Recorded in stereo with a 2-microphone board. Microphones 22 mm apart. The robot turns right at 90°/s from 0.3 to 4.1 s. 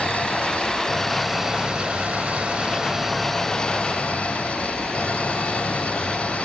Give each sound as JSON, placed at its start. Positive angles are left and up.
{"t": 0.0, "sound": "an engine running", "azimuth_deg": 100}